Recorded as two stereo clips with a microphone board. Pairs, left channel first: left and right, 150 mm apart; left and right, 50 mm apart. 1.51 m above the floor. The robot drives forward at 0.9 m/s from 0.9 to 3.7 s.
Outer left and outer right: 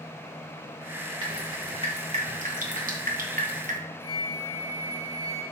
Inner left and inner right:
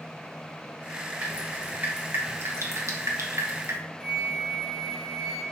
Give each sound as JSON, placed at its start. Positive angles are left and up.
{"t": 1.2, "sound": "dripping", "side_deg": -30, "distance_m": 2.0}
{"t": 4.0, "sound": "a flute", "side_deg": 5, "distance_m": 3.0}